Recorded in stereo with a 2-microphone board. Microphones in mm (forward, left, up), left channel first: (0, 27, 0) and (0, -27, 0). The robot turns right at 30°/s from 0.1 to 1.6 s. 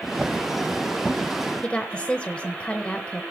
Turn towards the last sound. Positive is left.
turn(degrees=25)  # may be behind; listen again after turning